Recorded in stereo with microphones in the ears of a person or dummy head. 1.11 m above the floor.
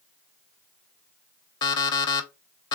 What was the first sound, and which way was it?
An alarm clock, 30° left (ahead or behind).